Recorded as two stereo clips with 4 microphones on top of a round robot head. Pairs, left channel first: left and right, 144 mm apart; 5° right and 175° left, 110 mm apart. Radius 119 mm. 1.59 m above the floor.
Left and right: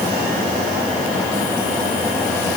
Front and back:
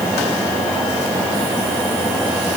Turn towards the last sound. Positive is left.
No sound to turn to.